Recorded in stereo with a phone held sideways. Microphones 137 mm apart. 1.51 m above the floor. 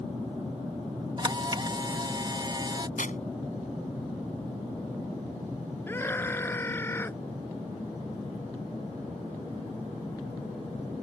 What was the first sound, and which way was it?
A camera shutter, 35° right (ahead or behind).